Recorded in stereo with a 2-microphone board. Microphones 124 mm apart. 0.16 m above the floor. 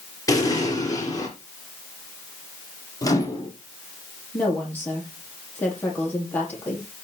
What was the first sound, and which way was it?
An explosion, 30° left (ahead or behind).